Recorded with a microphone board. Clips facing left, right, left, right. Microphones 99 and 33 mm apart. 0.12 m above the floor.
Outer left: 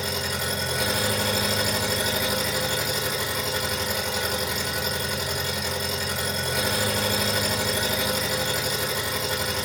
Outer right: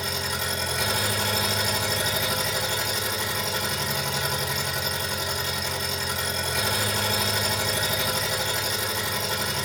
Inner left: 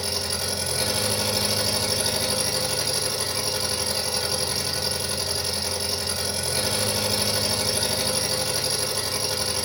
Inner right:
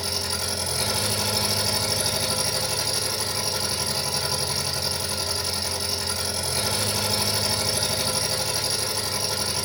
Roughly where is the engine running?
Centre.